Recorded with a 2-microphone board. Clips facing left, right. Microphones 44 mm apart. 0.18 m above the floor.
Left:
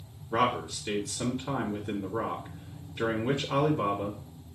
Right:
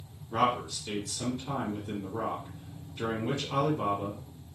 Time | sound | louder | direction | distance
0.3 | a man speaking | left 1 dB | 25° left (ahead or behind) | 1.7 m